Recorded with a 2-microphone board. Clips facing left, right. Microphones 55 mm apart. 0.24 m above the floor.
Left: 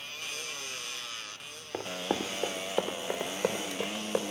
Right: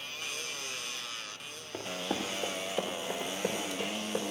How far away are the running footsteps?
About 0.8 m.